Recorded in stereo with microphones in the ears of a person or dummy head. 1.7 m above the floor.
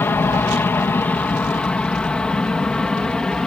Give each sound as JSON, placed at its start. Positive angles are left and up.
{"t": 0.0, "sound": "an aircraft", "side_deg": 10}